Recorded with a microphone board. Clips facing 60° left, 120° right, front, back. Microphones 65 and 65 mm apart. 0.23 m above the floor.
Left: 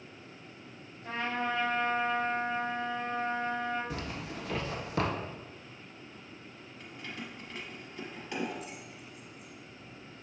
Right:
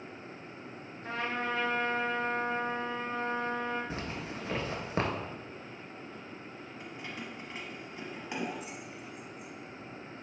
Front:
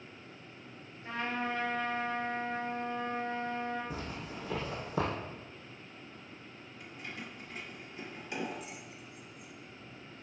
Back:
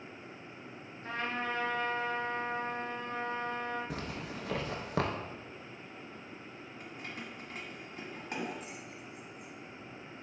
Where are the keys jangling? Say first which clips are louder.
Even, even; 175° left, 1.2 m.